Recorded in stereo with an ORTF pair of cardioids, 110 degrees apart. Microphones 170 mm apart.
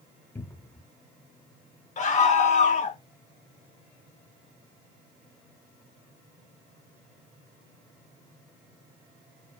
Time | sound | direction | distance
0.3 | a cupboard door | 10° left | 0.8 m
2.0 | a scream | 50° left | 1.6 m